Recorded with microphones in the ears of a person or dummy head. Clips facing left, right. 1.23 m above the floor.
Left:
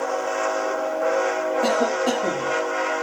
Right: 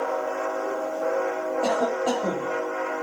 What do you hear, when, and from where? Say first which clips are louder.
1.6 s a cough: left 1 dB; 20° left (ahead or behind), 3 m